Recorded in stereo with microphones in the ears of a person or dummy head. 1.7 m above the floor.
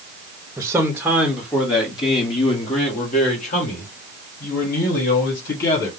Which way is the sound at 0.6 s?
10° right (ahead or behind).